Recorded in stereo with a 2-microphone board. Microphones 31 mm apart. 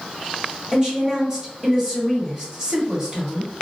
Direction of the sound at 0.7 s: 25° right (ahead or behind).